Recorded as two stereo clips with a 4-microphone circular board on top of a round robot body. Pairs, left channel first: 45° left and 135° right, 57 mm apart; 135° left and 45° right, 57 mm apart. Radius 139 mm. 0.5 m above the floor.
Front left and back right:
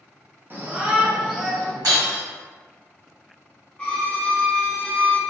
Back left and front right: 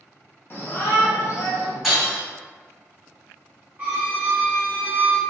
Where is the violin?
15° right, 1.1 m.